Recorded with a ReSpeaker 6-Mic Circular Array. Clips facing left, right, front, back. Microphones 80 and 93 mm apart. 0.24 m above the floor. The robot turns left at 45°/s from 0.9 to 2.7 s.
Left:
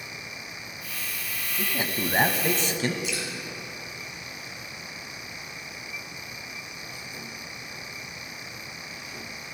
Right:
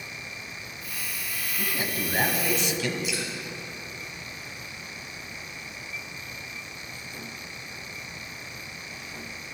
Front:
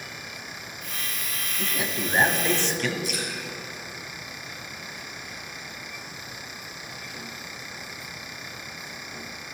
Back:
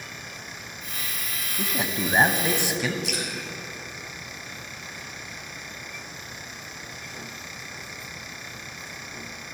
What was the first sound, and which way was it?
A man speaking, 155° left.